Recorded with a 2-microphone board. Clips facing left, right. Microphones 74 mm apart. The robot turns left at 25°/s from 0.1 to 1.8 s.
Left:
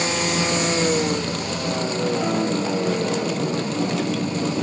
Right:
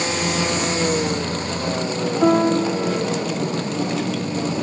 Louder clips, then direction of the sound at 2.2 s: Right 6 dB; 55° right (ahead or behind).